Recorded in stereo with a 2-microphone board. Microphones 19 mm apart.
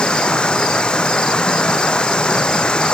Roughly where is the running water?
Left.